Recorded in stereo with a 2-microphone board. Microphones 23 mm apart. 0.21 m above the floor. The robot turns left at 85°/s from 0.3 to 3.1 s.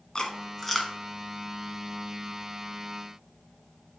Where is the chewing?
30° left (ahead or behind), 1.5 m; by 0.9 s 10° right (ahead or behind), 1.5 m.